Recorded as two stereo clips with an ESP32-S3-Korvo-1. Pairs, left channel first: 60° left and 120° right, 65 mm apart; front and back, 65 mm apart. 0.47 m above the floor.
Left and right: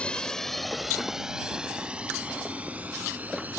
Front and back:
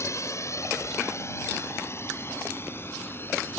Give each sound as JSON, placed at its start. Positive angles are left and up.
{"t": 0.0, "sound": "a drone", "azimuth_deg": -10}